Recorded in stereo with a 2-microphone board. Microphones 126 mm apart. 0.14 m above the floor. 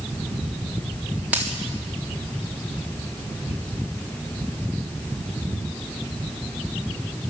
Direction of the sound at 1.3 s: 15° right (ahead or behind).